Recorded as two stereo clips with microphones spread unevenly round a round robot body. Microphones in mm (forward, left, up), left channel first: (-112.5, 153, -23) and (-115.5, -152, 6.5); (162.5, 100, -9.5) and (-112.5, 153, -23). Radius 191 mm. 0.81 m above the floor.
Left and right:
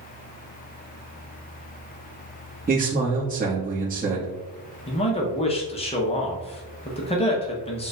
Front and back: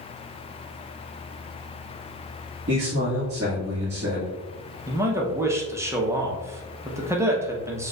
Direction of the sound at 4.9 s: 110° left.